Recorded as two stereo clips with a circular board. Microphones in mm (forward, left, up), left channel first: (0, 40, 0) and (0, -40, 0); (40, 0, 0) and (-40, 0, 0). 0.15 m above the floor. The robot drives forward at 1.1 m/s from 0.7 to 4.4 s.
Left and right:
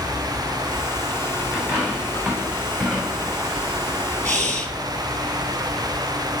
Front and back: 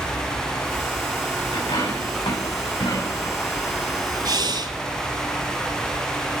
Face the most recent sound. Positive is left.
turn(degrees=170)